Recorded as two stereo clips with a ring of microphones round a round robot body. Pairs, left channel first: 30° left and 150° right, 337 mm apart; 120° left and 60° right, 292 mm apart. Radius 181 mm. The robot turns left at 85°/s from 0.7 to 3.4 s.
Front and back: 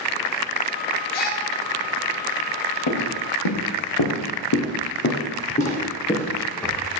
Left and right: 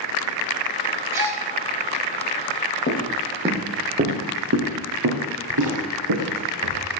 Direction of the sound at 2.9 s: 70° left.